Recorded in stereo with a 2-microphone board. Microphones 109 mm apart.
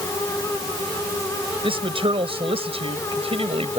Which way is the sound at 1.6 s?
55° right (ahead or behind).